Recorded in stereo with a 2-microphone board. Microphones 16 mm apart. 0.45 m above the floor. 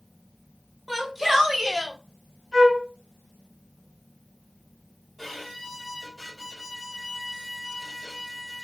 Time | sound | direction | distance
0.9 | a shout | 15° right (ahead or behind) | 1.1 m
2.5 | a flute | 70° right (ahead or behind) | 2.5 m
5.2 | a violin | 10° left (ahead or behind) | 2.0 m